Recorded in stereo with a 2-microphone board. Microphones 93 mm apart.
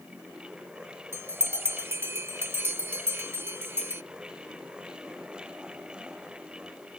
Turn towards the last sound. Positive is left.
turn(degrees=-25)  # may be behind; listen again after turning